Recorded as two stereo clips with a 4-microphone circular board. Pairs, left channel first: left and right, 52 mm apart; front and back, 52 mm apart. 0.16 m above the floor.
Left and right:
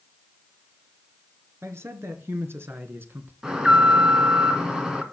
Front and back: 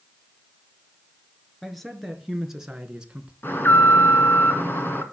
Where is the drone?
I don't hear a drone.